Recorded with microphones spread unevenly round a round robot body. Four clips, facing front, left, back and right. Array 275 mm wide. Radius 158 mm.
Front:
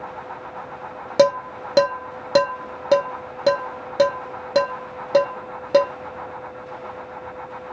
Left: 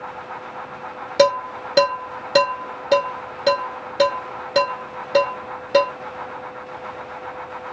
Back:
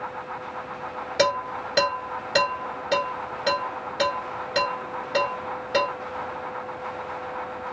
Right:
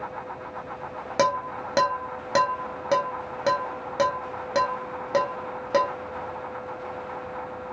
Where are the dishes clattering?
Straight ahead, 1.1 m.